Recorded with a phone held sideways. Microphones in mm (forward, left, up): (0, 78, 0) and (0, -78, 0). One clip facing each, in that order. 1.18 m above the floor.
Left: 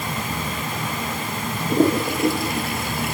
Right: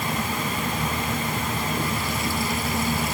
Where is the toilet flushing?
65° left (ahead or behind).